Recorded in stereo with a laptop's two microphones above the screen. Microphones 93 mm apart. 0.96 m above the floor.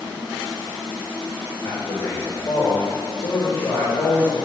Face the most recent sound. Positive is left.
turn(degrees=80)